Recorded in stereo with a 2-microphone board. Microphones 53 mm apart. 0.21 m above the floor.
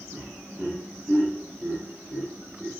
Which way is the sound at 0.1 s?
30° right (ahead or behind).